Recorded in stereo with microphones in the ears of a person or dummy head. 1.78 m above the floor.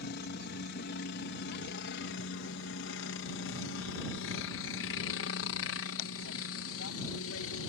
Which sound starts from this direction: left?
A helicopter, at 0.0 s.